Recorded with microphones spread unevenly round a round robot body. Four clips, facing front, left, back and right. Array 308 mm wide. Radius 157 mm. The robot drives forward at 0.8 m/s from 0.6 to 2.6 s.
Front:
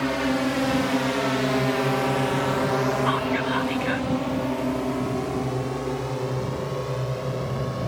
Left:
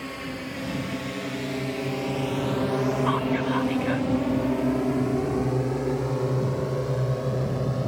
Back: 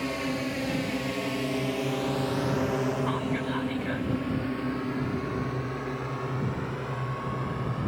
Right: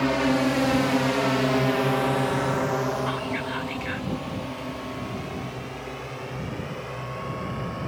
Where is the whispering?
50° left.